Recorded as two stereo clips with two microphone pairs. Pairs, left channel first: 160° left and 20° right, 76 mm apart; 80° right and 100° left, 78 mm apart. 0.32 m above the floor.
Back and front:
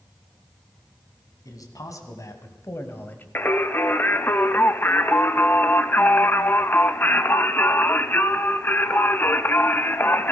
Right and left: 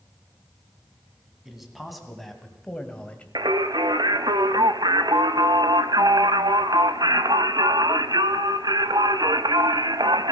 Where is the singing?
100° left, 0.6 m.